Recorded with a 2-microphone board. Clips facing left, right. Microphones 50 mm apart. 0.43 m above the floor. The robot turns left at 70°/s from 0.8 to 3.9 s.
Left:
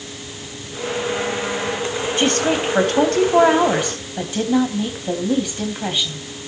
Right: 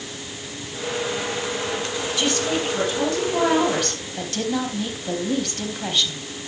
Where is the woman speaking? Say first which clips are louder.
Left 5 dB; 140° left, 3 m; by 6.2 s 15° left, 3 m.